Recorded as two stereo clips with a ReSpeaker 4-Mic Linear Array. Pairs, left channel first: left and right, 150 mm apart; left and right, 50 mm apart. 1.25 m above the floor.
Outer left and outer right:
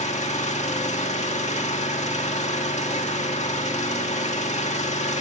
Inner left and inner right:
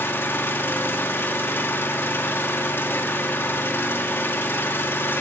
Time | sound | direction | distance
0.0 | an engine running | 50° left (ahead or behind) | 1.8 m